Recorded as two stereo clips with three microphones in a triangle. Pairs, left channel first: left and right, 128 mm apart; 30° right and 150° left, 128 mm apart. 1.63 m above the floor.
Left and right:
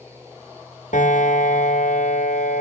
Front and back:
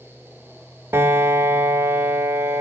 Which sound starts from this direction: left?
A piano, at 0.9 s.